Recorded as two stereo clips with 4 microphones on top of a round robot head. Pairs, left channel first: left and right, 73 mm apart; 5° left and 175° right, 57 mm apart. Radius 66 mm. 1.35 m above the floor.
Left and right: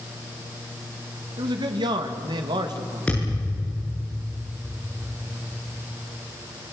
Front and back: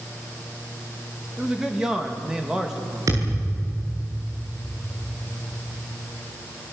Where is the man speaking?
95° right, 2.5 m.